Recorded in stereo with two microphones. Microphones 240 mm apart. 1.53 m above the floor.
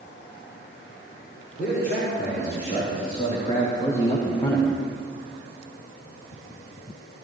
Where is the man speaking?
40° left (ahead or behind), 5 m; by 4.8 s 5° left (ahead or behind), 0.9 m.